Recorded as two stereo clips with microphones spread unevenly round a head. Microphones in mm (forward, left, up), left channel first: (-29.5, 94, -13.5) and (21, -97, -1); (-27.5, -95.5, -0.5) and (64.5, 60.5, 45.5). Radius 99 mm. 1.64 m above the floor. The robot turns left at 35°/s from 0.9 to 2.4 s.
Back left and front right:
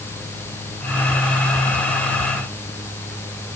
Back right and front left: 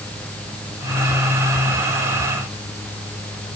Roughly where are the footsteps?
I don't hear footsteps.